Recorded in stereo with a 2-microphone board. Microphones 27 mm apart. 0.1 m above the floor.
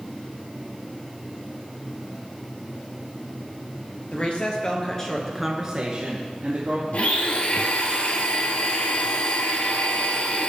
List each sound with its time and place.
4.1 s a woman speaking: 45° left (ahead or behind), 2 m; by 6.8 s 50° right (ahead or behind), 2.5 m
6.9 s a blender: 50° left (ahead or behind), 1.0 m